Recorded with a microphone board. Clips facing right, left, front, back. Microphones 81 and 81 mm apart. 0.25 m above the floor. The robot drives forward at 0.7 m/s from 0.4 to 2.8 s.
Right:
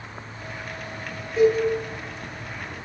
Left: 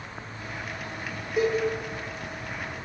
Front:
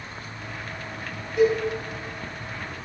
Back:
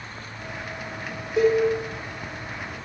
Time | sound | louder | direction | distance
1.4 | a cowbell | right 6 dB, back 1 dB | 170° left | 4.5 m